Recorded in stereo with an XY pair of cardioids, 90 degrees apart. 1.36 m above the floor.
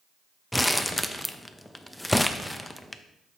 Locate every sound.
0.5 s crumpling: 10° left, 0.5 m